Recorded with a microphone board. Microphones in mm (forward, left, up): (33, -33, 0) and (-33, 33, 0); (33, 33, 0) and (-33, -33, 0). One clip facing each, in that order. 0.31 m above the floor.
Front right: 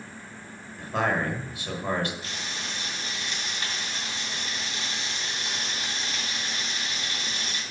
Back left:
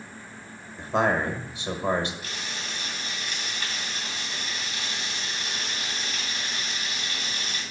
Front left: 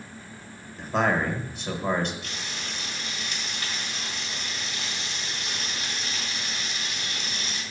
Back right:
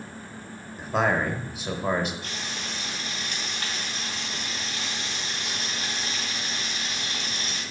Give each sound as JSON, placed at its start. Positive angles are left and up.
{"t": 0.8, "sound": "a man speaking", "azimuth_deg": 145, "distance_m": 0.9}
{"t": 2.2, "sound": "frying", "azimuth_deg": -100, "distance_m": 2.5}